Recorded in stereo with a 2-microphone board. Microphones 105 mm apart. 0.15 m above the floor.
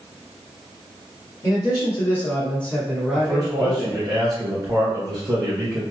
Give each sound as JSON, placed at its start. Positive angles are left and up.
{"t": 1.4, "sound": "a man speaking", "side_deg": 35, "distance_m": 1.3}
{"t": 3.1, "sound": "a man speaking", "side_deg": -40, "distance_m": 1.6}